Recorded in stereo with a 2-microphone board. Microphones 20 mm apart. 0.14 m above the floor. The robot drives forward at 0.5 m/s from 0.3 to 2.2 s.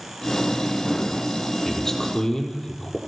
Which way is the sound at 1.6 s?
25° left (ahead or behind).